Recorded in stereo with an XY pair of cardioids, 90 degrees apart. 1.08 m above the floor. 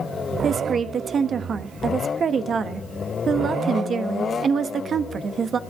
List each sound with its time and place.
0.4 s a woman speaking: 50° right, 1.2 m